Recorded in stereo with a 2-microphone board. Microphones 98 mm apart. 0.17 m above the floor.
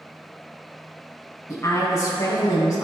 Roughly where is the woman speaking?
Left.